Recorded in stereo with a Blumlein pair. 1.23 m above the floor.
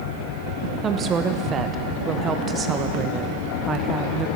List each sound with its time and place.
0.8 s a woman speaking: 25° right, 1.1 m